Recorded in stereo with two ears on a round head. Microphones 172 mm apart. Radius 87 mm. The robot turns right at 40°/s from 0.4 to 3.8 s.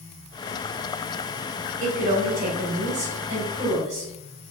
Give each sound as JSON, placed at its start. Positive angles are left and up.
{"t": 1.8, "sound": "a woman speaking", "azimuth_deg": -105, "distance_m": 1.5}